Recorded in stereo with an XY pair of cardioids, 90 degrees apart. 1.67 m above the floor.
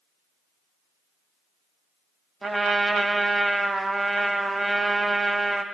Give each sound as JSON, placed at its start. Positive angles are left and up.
{"t": 2.4, "sound": "a trumpet", "azimuth_deg": -25, "distance_m": 1.3}